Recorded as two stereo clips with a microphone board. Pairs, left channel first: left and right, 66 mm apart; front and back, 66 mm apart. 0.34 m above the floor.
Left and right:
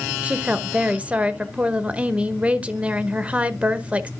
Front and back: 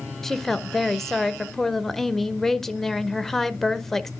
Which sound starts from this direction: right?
A woman speaking, at 0.2 s.